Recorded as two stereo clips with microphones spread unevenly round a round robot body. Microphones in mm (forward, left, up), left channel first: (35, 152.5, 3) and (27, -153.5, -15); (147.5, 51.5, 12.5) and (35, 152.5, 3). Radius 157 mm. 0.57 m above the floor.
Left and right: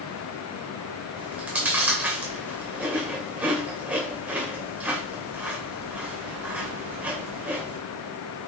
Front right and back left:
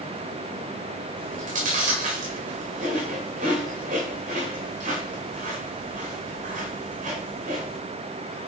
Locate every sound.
1.2 s chewing: 175° right, 2 m